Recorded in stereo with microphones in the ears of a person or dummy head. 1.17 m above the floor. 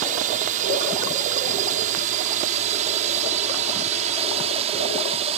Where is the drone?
40° right (ahead or behind); by 5.4 s 30° right (ahead or behind).